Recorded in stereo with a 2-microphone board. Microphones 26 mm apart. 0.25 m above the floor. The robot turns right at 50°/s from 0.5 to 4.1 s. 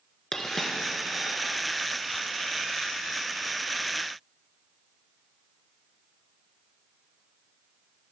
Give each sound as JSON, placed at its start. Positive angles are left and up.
{"t": 0.3, "sound": "a dropped coin", "side_deg": 20, "distance_m": 1.4}